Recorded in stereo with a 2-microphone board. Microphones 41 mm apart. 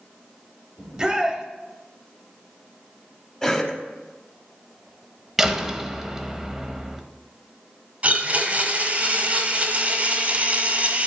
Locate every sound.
0.8 s a shout: 20° right (ahead or behind), 1.1 m
3.4 s a cough: 15° left (ahead or behind), 1.4 m
5.4 s a door slam: 10° right (ahead or behind), 0.7 m
8.0 s a blender: 35° right (ahead or behind), 1.4 m